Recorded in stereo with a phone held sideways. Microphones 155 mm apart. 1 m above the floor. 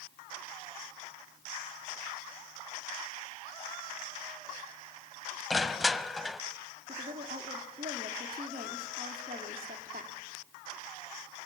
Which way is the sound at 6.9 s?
70° right (ahead or behind).